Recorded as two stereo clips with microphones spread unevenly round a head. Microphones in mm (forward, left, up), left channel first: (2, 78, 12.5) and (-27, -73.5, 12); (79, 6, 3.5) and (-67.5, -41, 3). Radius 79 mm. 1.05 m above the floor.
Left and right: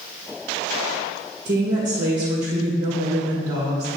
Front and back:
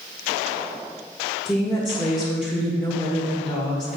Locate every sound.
1.4 s a woman speaking: 65° right, 1.6 m